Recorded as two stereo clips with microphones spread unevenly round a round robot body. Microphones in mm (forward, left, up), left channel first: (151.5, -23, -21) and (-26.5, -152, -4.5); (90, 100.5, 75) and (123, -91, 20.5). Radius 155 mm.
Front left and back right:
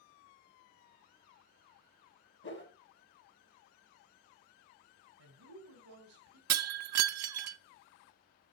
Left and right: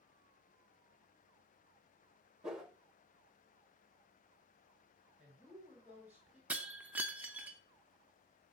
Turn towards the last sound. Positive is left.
turn(degrees=-160)